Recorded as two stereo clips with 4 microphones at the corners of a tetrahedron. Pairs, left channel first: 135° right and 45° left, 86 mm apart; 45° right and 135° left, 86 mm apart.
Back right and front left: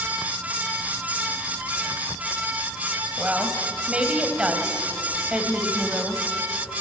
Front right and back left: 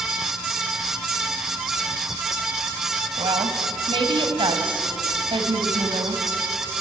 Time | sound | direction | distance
3.2 | a woman speaking | 120° left | 2.5 m